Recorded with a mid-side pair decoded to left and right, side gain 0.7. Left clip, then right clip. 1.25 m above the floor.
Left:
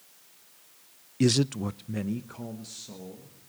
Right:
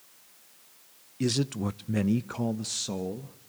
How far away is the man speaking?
About 0.5 m.